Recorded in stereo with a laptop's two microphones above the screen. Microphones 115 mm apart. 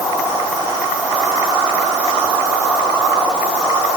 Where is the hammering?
I don't hear hammering.